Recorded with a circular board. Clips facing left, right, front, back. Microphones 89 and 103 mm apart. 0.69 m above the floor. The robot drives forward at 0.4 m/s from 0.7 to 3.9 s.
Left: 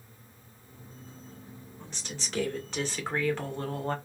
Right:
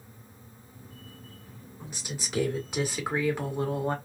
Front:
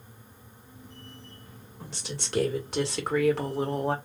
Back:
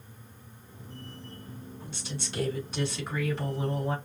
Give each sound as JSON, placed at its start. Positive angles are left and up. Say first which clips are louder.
{"t": 1.8, "sound": "a woman speaking", "louder": "right 3 dB, front 2 dB", "azimuth_deg": -10, "distance_m": 2.0}